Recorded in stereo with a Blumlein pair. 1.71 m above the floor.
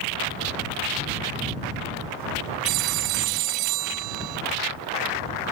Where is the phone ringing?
40° right.